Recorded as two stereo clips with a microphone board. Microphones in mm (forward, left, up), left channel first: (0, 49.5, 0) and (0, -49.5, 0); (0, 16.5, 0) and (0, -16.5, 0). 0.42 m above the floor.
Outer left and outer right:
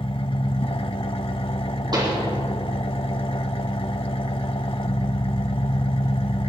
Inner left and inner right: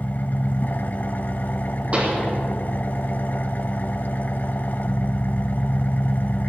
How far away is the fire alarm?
No fire alarm in this recording.